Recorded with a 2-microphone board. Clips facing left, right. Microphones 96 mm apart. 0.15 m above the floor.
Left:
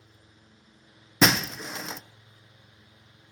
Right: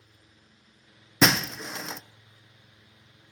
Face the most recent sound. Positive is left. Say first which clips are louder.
# even
turn(degrees=0)  # may be behind; listen again after turning